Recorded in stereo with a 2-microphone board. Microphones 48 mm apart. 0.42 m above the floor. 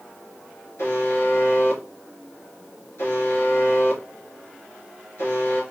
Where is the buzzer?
70° left (ahead or behind), 4 m.